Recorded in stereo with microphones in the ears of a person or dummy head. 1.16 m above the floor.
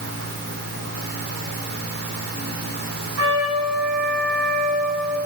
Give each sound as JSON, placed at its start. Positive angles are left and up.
{"t": 0.0, "sound": "a fan", "side_deg": -60, "distance_m": 1.6}
{"t": 3.2, "sound": "a trumpet", "side_deg": -75, "distance_m": 7.0}